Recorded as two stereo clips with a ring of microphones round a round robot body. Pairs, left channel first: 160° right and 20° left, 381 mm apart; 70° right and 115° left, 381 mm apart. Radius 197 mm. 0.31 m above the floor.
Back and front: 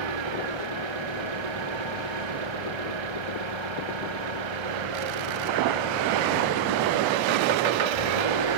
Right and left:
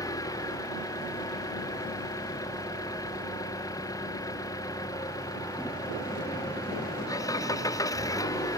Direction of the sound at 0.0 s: 15° left.